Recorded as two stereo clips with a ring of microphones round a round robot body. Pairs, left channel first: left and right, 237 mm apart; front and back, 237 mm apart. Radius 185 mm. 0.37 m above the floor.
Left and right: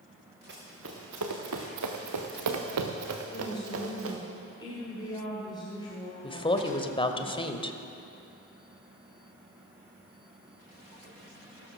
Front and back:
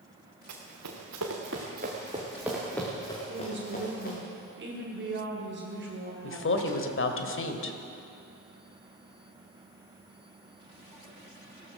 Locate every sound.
0.5 s running footsteps: 150° right, 2 m; by 4.2 s 65° right, 3 m
3.3 s a woman speaking: 160° left, 2 m
6.2 s a woman speaking: 25° left, 1.6 m